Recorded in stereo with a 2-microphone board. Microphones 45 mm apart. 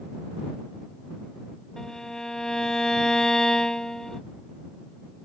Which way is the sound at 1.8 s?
10° left (ahead or behind).